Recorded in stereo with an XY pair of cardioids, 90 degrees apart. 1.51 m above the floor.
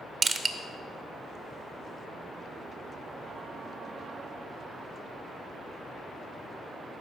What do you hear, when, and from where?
0.2 s crushing: 50° right, 1.0 m